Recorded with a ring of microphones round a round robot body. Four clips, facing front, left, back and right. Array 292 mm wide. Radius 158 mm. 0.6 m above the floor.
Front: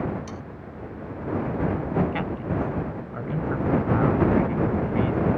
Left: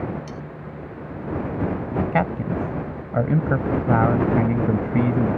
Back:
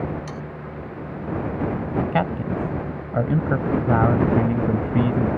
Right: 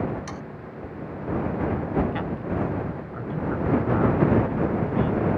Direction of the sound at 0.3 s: 115° right.